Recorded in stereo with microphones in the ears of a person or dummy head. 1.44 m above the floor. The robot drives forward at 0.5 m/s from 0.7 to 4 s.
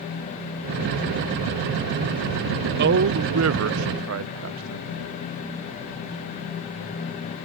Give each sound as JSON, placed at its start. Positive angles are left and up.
{"t": 2.8, "sound": "a man speaking", "side_deg": -60}